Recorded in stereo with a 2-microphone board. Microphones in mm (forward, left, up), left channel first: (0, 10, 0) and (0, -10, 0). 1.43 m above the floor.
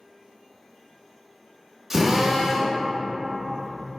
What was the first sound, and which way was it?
A drill, 15° right (ahead or behind).